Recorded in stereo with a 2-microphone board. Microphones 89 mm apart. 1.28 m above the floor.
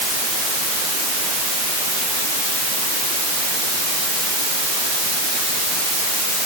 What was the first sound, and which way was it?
Only background noise.